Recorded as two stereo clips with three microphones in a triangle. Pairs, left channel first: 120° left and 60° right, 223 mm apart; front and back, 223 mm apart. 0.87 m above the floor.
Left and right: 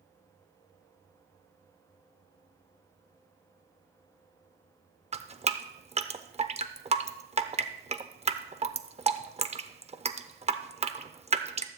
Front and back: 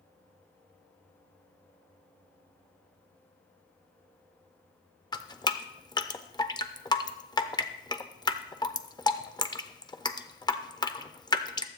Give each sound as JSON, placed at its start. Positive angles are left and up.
{"t": 5.1, "sound": "dripping", "azimuth_deg": -50, "distance_m": 0.5}